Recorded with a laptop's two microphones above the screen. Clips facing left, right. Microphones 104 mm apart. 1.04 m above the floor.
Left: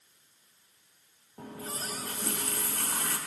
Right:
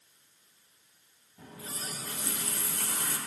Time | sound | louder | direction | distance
1.4 | a running tap | left 4 dB | 55° left (ahead or behind) | 1.2 m